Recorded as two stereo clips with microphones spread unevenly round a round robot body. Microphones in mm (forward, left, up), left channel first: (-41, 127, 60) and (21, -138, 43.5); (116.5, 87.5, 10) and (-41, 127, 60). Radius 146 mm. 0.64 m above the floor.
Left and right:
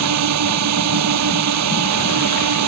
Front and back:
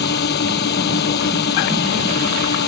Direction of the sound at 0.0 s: 45° right.